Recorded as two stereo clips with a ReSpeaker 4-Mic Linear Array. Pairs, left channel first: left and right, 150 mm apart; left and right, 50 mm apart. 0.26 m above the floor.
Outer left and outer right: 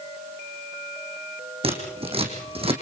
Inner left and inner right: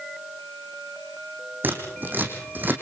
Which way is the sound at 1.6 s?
40° right (ahead or behind).